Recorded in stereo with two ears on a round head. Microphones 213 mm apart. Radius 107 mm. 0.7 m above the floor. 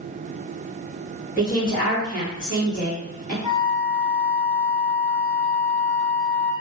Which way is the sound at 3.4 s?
20° right (ahead or behind).